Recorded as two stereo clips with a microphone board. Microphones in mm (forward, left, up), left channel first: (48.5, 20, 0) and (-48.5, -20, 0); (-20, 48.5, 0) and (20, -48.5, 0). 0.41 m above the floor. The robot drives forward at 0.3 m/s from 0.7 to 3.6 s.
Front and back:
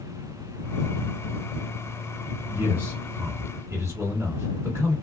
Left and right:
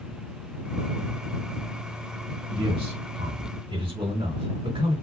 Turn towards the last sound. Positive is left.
turn(degrees=-95)